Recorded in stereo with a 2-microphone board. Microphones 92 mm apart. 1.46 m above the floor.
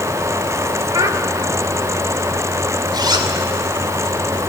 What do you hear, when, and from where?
0.9 s a child speaking: 40° right (ahead or behind), 1.7 m
2.9 s a zipper: 50° right (ahead or behind), 2.5 m